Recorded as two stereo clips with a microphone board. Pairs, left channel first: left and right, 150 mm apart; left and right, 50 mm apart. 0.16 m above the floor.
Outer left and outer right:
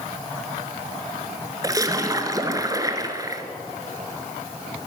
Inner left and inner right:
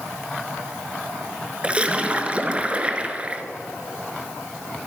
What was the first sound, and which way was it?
A splash, 25° right (ahead or behind).